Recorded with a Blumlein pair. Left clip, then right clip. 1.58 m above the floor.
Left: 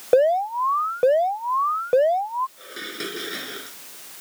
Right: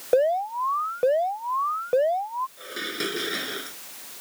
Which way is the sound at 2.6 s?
5° right.